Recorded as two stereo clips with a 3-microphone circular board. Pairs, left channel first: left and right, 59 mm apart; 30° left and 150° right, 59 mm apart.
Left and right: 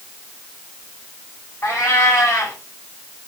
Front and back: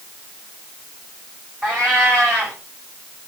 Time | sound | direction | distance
1.6 | a cat meowing | 150° left | 4.5 m